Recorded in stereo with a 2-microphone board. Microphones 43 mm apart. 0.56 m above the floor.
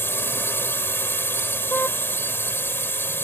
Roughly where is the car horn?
Left.